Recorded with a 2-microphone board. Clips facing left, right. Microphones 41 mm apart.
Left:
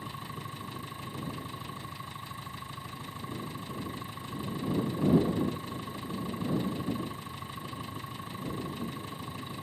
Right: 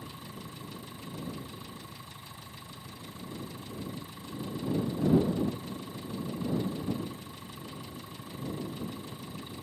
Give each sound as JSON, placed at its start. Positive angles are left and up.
{"t": 0.0, "sound": "an engine running", "side_deg": 30}